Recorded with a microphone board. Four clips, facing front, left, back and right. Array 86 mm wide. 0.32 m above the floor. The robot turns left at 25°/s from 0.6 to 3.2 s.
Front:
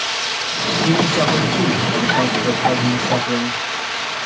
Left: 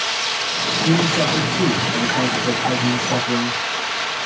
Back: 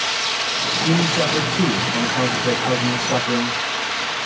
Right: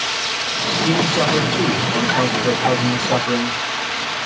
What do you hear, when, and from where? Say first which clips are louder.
0.8 s a man speaking: even, front 3 dB; 25° right, 1.3 m; by 3.6 s 85° right, 1.3 m